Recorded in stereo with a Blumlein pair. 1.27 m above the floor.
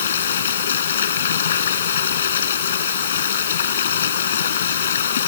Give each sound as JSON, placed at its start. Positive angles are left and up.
{"t": 0.0, "sound": "running water", "azimuth_deg": 65}